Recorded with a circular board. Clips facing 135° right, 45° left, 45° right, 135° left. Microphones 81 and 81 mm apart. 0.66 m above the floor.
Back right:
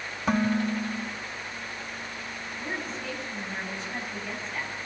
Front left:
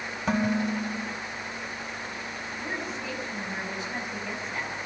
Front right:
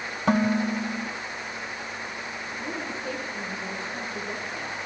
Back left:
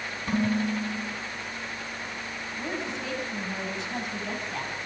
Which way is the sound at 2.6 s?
130° left.